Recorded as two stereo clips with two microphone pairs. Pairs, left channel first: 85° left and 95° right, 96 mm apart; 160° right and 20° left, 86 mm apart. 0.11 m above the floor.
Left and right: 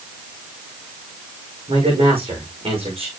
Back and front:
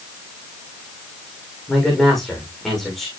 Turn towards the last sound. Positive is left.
turn(degrees=-70)